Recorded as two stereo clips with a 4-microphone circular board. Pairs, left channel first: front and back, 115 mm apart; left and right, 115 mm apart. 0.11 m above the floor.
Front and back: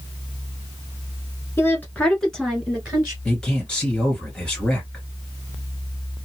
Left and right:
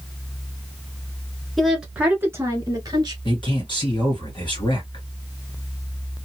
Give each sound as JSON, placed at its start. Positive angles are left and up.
{"t": 1.6, "sound": "a woman speaking", "azimuth_deg": 5, "distance_m": 1.2}
{"t": 3.2, "sound": "a man speaking", "azimuth_deg": 80, "distance_m": 2.5}